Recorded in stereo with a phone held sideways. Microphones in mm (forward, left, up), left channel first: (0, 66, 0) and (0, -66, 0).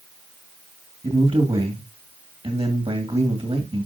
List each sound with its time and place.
1.0 s a man speaking: 45° right (ahead or behind), 2.5 m